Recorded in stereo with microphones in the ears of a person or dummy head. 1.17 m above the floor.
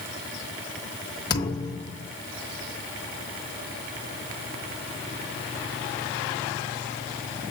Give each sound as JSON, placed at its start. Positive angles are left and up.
{"t": 1.3, "sound": "a thud", "side_deg": 25, "distance_m": 1.0}